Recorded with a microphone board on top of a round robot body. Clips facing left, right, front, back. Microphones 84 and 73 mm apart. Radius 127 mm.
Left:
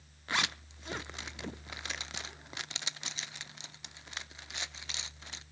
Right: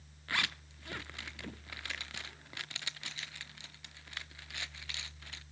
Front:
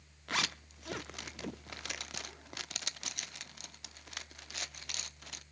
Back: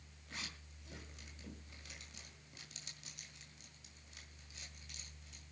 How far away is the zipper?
About 0.6 m.